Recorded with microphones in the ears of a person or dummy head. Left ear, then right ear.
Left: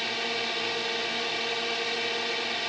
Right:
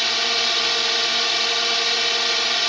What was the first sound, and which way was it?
A drone, 60° right (ahead or behind).